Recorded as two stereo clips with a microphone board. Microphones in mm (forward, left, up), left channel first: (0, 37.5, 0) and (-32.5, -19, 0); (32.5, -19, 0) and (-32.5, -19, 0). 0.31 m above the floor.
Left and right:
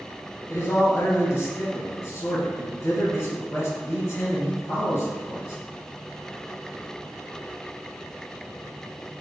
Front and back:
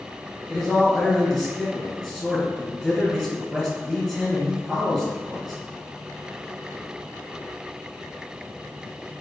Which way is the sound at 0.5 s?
95° left.